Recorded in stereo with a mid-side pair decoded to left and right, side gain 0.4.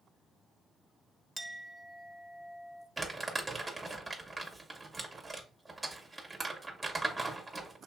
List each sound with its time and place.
1.4 s a clink: 5° right, 0.6 m
3.0 s crumpling: 25° right, 1.8 m